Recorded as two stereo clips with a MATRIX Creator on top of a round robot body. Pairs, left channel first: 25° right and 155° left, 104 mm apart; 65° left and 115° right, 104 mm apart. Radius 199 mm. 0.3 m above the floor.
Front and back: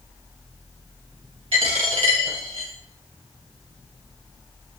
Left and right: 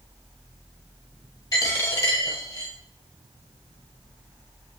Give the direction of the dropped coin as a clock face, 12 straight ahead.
8 o'clock.